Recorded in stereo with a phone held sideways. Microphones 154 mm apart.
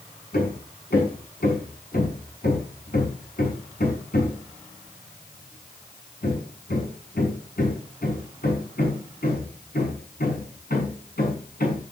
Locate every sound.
0.3 s hammering: 80° left, 6 m